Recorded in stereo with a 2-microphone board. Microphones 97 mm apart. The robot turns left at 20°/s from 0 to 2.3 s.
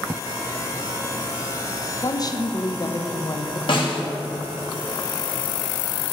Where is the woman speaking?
45° left (ahead or behind), 1.0 m; by 3.6 s 40° left (ahead or behind), 1.0 m.